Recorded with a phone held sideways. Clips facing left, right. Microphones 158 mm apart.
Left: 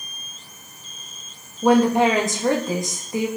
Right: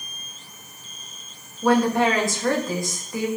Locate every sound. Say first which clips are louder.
1.6 s a woman speaking: left 3 dB; 20° left (ahead or behind), 1.5 m